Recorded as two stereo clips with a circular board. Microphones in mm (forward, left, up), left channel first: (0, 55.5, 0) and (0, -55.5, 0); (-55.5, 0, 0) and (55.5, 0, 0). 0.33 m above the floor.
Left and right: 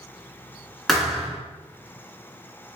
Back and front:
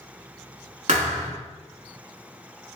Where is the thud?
Straight ahead, 0.9 m.